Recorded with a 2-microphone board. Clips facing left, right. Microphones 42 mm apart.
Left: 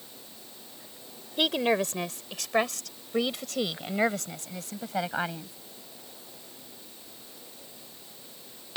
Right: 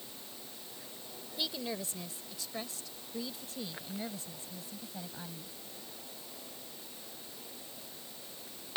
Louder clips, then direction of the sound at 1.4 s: Left 13 dB; 65° left (ahead or behind).